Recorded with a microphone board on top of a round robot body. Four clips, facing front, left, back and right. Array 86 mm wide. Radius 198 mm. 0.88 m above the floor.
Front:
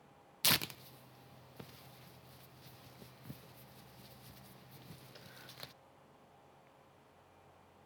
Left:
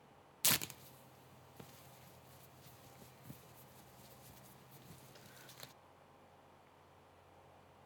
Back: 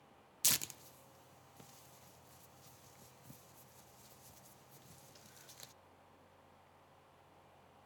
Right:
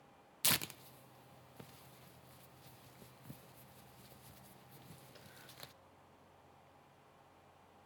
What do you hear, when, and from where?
0.4 s tearing paper: 5° right, 0.6 m